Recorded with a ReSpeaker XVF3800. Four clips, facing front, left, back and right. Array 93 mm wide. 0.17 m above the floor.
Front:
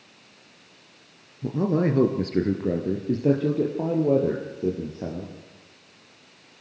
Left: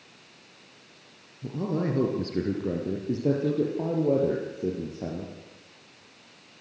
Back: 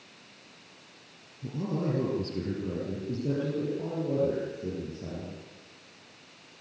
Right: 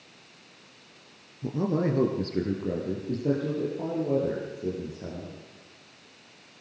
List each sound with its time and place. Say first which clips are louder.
1.4 s a man speaking: right 2 dB, front 9 dB; 20° right, 2.5 m; by 5.3 s 35° left, 5.5 m